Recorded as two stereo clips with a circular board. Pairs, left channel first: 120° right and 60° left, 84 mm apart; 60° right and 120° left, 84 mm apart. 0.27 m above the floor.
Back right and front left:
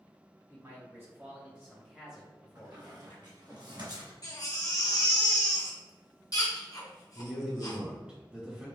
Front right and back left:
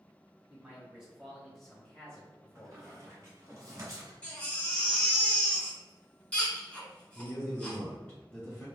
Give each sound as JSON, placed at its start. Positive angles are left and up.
{"t": 0.5, "sound": "a man speaking", "azimuth_deg": 55, "distance_m": 1.8}
{"t": 2.5, "sound": "a squeak", "azimuth_deg": 75, "distance_m": 1.6}
{"t": 4.2, "sound": "a baby crying", "azimuth_deg": -130, "distance_m": 1.2}
{"t": 7.2, "sound": "a man speaking", "azimuth_deg": -5, "distance_m": 1.1}